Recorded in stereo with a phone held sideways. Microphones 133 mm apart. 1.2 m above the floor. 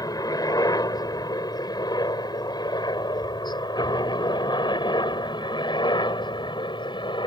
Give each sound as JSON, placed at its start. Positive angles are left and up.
{"t": 0.0, "sound": "a helicopter", "side_deg": 30}